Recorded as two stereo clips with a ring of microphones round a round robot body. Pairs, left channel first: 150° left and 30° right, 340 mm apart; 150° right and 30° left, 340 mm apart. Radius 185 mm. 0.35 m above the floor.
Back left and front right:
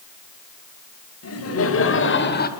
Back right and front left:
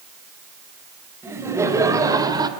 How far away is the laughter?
About 2.5 m.